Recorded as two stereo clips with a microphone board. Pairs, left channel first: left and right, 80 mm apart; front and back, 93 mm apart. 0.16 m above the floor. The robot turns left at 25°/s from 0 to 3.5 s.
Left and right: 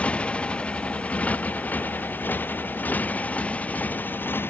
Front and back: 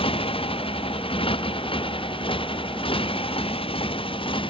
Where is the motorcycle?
15° left; by 4.5 s 25° left.